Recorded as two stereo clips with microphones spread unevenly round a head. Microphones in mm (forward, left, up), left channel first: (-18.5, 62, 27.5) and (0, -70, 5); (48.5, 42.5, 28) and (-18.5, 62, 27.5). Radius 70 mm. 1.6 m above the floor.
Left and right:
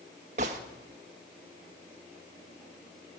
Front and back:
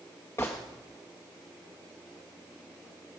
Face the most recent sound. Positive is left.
turn(degrees=-70)